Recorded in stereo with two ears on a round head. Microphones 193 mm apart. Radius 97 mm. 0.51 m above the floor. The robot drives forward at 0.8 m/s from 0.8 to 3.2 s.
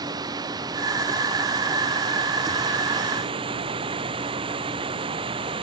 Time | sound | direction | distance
0.0 | running water | 20° right (ahead or behind) | ?